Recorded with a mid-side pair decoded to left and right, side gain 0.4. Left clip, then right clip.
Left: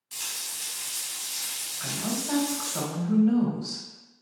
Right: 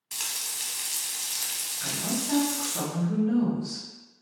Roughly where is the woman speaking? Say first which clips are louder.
Even; ahead left.